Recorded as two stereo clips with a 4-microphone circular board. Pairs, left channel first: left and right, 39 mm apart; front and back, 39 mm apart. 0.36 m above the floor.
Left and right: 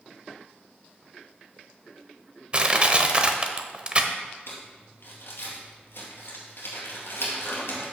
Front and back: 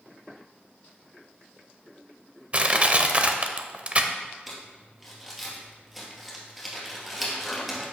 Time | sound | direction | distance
2.5 | crushing | 140° right | 0.6 m
4.5 | crumpling | 85° left | 2.5 m